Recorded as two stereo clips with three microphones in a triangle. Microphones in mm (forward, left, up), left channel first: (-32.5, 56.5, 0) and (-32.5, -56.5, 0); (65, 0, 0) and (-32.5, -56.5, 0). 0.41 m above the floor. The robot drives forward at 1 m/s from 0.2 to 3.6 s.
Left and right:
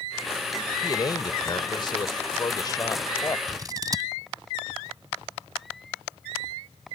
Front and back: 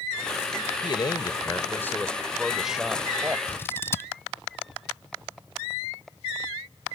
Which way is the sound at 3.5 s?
35° right.